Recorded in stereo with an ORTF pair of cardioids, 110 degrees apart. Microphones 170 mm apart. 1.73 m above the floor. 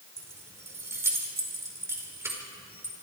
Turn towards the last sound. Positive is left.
turn(degrees=-15)